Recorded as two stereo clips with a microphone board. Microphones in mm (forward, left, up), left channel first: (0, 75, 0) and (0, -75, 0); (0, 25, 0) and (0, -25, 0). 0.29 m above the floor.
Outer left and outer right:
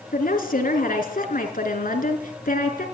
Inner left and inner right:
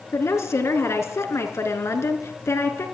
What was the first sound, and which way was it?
A woman speaking, 70° left (ahead or behind).